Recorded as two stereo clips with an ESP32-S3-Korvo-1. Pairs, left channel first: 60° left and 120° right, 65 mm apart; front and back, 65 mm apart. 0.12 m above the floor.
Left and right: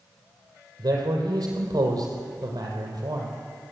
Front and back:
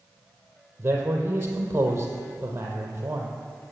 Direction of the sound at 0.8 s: 125° right.